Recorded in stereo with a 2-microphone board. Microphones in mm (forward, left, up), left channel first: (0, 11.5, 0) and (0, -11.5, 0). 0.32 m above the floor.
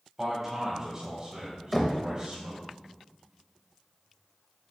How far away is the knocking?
About 0.8 m.